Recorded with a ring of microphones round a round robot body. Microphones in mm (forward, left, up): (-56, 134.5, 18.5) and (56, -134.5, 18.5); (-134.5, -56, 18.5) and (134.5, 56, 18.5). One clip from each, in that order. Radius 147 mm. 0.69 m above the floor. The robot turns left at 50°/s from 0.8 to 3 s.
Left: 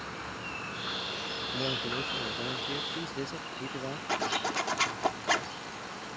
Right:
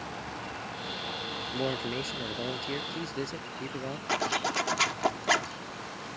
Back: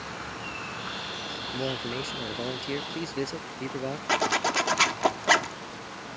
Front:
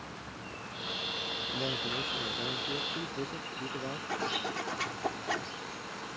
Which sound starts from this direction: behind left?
An insect, at 0.0 s.